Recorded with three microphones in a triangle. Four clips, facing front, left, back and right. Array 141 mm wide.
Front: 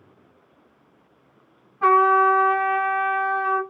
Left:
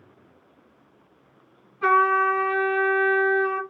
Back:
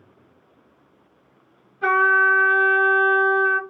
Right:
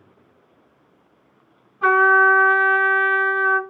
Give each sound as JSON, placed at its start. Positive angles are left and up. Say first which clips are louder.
{"t": 1.8, "sound": "a trumpet", "louder": "right 4 dB, front 2 dB", "azimuth_deg": -20, "distance_m": 1.9}